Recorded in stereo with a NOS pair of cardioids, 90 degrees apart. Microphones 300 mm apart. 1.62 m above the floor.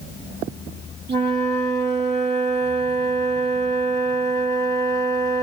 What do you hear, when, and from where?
1.1 s a flute: 35° right, 2 m